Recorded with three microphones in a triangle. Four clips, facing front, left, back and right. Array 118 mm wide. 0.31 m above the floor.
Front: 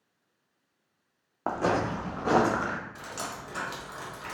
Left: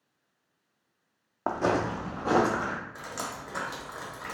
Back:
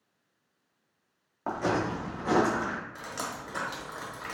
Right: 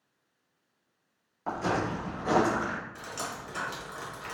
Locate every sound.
1.5 s footsteps: 60° left, 0.8 m; by 2.8 s 20° left, 1.5 m
3.0 s dripping: 125° left, 1.0 m